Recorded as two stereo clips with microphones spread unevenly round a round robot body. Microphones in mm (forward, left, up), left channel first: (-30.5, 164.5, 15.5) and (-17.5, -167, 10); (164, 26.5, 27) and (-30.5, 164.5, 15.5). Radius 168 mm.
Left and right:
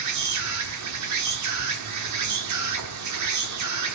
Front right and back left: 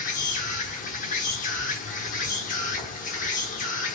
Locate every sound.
0.0 s an insect: 90° right, 1.1 m